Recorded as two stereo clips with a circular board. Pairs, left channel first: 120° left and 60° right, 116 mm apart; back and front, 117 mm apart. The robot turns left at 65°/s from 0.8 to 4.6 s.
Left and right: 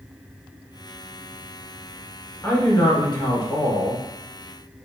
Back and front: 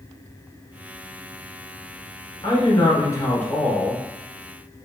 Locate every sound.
2.4 s a man speaking: straight behind, 1.5 m; by 4.0 s 75° left, 1.5 m